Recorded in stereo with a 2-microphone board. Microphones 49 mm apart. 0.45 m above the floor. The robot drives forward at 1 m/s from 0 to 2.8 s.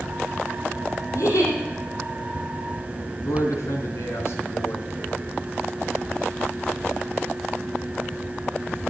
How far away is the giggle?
About 6 m.